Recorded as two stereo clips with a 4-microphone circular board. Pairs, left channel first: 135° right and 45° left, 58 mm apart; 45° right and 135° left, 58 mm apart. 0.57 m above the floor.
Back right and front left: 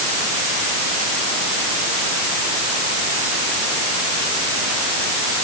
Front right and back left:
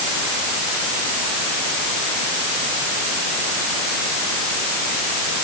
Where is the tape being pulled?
No tape being pulled in this recording.